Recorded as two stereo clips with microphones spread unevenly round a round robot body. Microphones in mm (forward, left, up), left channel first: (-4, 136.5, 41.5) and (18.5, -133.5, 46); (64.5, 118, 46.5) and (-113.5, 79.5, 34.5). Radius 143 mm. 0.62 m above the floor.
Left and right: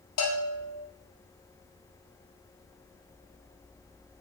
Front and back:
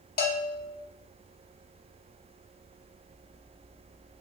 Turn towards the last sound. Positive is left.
turn(degrees=50)